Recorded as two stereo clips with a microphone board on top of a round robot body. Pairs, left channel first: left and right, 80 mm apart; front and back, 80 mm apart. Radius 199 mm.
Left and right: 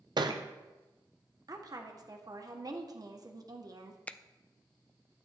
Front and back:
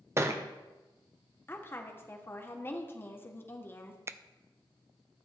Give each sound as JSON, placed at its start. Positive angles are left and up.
{"t": 0.2, "sound": "a thud", "azimuth_deg": -120, "distance_m": 0.7}
{"t": 1.5, "sound": "a woman speaking", "azimuth_deg": -60, "distance_m": 1.4}
{"t": 4.1, "sound": "a finger snap", "azimuth_deg": 150, "distance_m": 0.6}